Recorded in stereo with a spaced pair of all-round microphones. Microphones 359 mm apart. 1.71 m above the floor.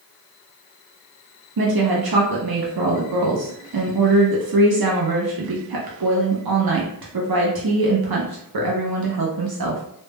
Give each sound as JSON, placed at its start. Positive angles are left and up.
{"t": 1.6, "sound": "a woman speaking", "side_deg": -80, "distance_m": 0.5}